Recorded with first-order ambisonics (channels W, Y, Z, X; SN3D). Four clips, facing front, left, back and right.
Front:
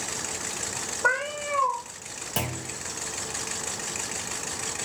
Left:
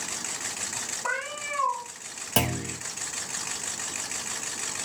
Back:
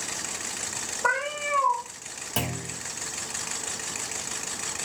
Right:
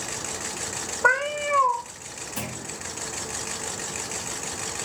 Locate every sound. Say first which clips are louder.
1.0 s a cat meowing: right 11 dB, even; 90° right, 0.9 m
2.4 s a clunk: left 9 dB, even; 90° left, 0.5 m